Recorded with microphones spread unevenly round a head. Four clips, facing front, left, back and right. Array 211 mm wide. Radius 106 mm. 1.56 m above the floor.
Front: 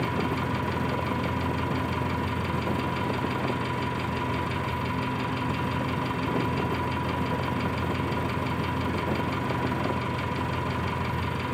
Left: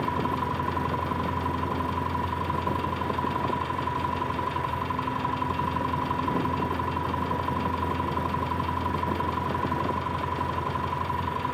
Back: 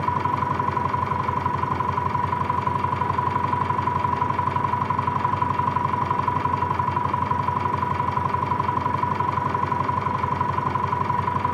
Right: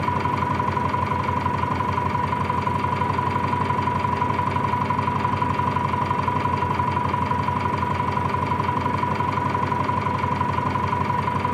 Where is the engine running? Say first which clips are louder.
Right 5 dB, back 5 dB; 120° right, 5 m.